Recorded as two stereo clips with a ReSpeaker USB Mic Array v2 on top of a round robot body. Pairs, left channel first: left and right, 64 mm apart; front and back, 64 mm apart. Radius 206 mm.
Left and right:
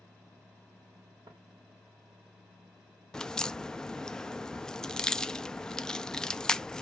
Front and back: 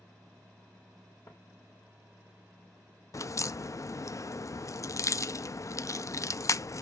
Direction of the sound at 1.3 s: 55° right.